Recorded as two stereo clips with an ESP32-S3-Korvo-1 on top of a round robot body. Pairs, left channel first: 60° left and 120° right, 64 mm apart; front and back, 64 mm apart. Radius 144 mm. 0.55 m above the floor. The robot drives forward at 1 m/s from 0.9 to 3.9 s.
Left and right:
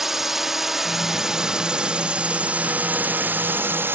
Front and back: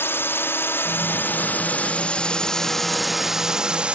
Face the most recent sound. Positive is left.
turn(degrees=-120)